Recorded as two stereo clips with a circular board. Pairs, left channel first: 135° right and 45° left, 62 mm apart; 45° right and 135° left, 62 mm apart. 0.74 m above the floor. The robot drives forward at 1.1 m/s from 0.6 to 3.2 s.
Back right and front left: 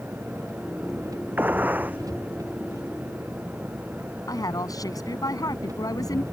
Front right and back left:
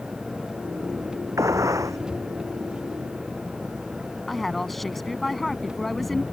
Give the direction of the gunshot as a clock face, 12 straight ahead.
9 o'clock.